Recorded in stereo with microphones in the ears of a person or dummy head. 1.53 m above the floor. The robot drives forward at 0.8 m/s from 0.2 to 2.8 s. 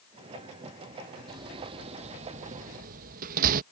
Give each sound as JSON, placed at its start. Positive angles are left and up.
{"t": 1.3, "sound": "a door slam", "side_deg": -25}